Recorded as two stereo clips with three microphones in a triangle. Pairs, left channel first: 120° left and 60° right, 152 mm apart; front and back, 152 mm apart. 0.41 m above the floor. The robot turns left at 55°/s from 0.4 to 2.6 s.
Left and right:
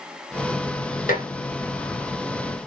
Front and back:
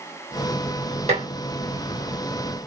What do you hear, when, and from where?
1.1 s dishes clattering: 140° left, 2.5 m; by 1.3 s 130° left, 2.5 m